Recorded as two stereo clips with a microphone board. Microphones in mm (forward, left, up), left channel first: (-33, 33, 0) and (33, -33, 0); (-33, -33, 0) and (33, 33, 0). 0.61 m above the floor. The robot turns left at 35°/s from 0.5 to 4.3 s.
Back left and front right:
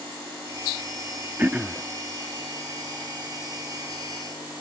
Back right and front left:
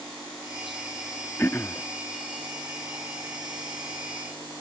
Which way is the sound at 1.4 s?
95° right.